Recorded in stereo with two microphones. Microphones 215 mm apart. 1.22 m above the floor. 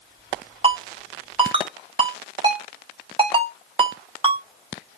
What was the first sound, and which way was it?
A ringtone, 25° right (ahead or behind).